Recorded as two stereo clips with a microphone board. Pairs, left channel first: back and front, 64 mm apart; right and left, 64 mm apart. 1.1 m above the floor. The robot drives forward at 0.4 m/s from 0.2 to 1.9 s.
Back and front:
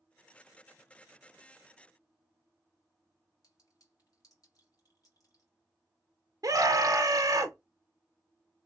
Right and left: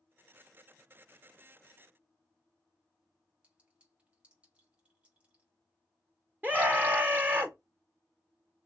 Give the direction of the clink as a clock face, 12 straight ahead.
7 o'clock.